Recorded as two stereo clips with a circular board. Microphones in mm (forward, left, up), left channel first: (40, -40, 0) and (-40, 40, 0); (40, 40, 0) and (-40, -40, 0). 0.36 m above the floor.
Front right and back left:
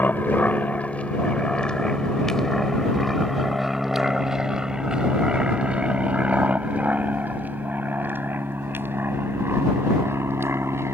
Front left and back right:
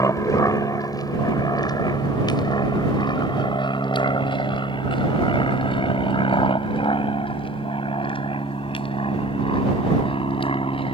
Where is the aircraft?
15° left; by 10.9 s 70° left.